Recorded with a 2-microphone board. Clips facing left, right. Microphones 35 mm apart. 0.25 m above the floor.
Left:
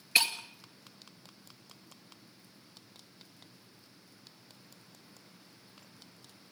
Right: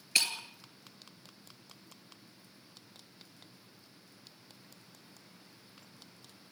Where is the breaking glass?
20° left (ahead or behind), 2.5 m.